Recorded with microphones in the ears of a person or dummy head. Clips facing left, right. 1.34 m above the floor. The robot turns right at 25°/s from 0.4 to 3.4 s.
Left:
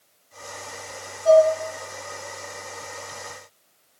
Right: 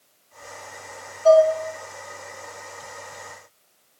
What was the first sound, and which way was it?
Dishes clattering, 70° right (ahead or behind).